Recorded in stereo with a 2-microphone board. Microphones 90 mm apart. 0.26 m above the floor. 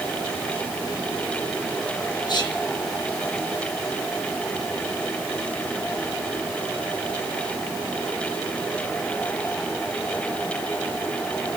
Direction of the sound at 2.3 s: 50° left (ahead or behind).